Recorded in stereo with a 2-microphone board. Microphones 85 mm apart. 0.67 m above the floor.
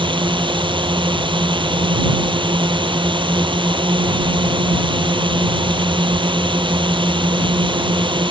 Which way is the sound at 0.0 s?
75° right (ahead or behind).